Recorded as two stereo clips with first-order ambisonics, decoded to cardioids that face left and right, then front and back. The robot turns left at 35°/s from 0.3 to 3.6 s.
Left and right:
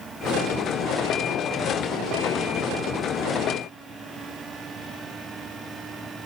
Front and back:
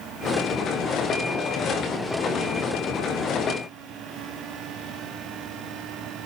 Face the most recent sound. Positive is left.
No sound to turn to.